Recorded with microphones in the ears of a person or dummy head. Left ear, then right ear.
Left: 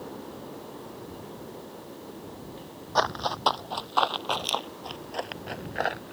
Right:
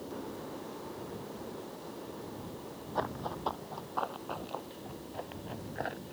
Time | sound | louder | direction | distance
3.0 | running footsteps | left 10 dB | 65° left (ahead or behind) | ?